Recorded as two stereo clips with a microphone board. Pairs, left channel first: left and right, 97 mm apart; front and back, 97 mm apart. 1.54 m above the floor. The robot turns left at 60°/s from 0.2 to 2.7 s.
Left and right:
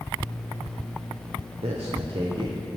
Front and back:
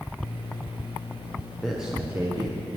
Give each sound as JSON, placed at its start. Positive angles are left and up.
{"t": 1.6, "sound": "a man speaking", "azimuth_deg": -85, "distance_m": 1.0}